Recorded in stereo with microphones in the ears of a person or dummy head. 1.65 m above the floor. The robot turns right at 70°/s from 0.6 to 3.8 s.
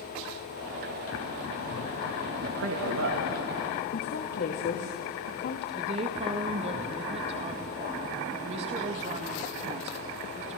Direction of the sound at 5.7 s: 35° right (ahead or behind).